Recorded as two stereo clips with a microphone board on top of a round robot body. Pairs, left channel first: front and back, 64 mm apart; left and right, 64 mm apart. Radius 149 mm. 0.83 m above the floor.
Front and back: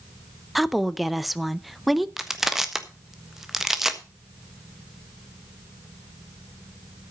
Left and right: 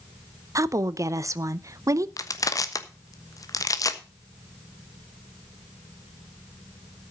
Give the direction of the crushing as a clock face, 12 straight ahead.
9 o'clock.